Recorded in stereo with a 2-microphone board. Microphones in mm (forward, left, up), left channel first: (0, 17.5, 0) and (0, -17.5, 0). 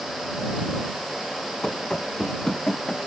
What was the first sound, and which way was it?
Running footsteps, 20° left (ahead or behind).